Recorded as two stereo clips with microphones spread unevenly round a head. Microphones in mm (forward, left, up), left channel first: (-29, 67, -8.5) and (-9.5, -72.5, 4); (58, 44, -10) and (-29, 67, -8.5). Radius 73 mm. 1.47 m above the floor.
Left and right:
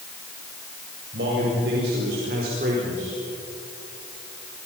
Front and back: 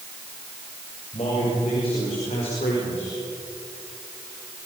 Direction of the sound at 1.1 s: 65° right.